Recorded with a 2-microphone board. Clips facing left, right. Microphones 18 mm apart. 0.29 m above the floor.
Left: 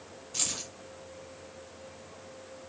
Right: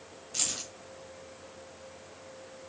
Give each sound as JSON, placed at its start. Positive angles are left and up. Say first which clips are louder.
{"t": 0.3, "sound": "keys jangling", "louder": "even", "side_deg": -10, "distance_m": 1.0}